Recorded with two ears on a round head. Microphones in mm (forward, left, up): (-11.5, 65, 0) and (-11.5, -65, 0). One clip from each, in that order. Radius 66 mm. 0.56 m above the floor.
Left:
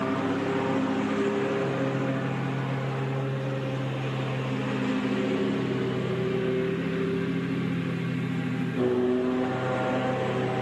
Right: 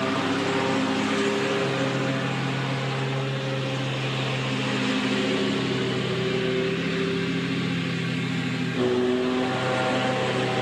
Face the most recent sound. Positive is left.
turn(degrees=-55)  # may be behind; listen again after turning